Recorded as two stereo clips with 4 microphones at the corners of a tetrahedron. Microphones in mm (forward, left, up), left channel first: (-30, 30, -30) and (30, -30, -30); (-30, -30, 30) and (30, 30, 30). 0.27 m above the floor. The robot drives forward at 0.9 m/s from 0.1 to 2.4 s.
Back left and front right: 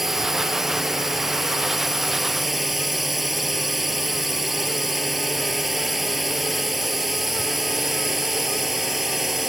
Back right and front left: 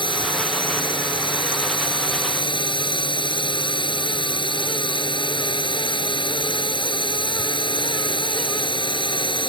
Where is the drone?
130° right.